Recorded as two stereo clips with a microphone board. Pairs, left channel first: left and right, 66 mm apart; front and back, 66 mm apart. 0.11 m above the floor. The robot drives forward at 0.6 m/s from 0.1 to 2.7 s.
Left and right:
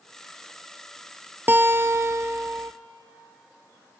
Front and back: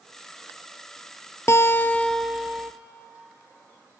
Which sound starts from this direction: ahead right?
A guitar, at 1.5 s.